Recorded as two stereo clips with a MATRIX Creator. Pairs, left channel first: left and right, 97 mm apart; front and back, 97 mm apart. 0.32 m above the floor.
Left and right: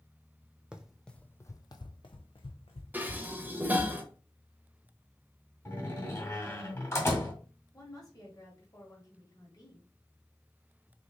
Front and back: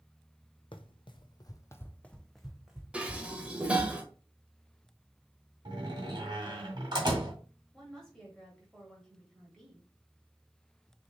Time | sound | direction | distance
0.7 | running footsteps | 10° right | 0.6 m
2.9 | dishes clattering | 125° right | 0.7 m
5.7 | a door slam | 150° left | 1.7 m
7.7 | a woman speaking | 80° left | 1.6 m